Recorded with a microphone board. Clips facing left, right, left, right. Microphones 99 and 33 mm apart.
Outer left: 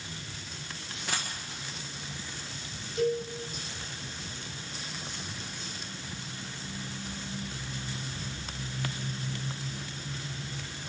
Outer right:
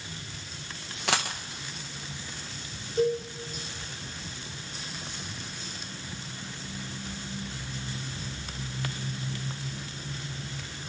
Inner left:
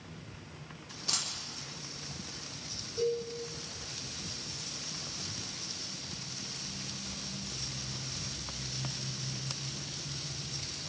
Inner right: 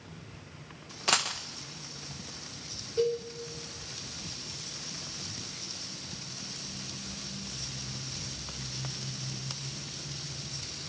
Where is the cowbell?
45° right (ahead or behind), 7 m.